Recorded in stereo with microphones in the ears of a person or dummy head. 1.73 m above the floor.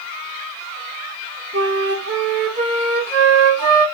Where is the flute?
60° right (ahead or behind), 1.7 m.